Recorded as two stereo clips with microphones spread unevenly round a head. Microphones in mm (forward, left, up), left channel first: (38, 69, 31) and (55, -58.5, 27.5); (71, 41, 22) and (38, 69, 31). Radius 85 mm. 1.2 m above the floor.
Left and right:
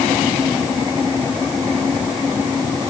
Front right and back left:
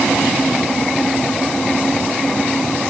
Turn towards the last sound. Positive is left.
No sound to turn to.